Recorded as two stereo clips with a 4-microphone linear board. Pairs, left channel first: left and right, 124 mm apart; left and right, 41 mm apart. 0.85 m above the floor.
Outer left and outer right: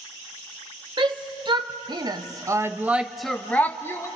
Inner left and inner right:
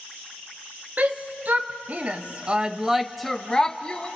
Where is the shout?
40° right (ahead or behind), 1.1 m; by 4.1 s 20° left (ahead or behind), 0.8 m.